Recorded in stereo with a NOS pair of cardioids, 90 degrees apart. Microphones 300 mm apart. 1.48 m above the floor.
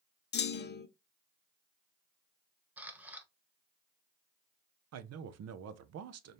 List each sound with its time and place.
0.3 s a clunk: 40° left, 0.7 m
2.8 s a camera shutter: 5° right, 1.0 m
4.9 s a man speaking: 65° right, 0.8 m